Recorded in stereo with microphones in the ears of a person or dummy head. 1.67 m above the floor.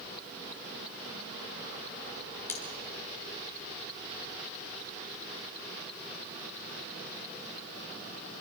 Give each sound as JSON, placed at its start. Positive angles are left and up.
{"t": 2.5, "sound": "cutlery clinking", "side_deg": 15, "distance_m": 0.8}